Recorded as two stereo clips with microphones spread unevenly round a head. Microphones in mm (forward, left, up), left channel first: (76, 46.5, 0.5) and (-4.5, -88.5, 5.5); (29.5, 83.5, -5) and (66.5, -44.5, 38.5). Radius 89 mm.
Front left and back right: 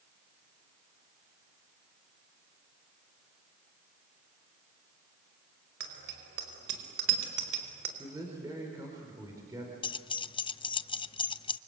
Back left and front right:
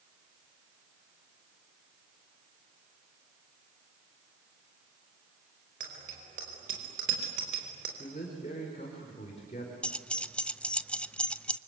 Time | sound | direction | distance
5.8 | a bicycle bell | 120° right | 5 m
8.0 | a man speaking | 165° left | 4.5 m
9.8 | keys jangling | 10° left | 0.6 m